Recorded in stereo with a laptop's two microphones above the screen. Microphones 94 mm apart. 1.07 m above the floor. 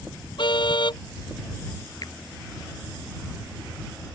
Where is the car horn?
65° left (ahead or behind).